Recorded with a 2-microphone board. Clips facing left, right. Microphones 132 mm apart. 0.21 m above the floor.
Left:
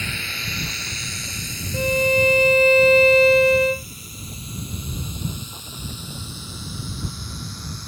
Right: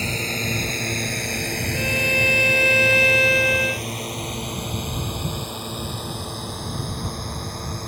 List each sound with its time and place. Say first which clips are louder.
0.0 s a drone: right 7 dB; 35° right (ahead or behind); by 7.9 s 55° right (ahead or behind)
1.7 s a violin: left 8 dB; 35° left (ahead or behind)